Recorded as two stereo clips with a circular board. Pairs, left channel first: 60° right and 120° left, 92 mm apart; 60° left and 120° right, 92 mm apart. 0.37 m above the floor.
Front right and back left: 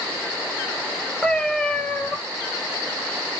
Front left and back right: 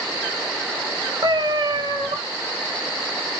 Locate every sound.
1.2 s a cat meowing: 140° right, 0.6 m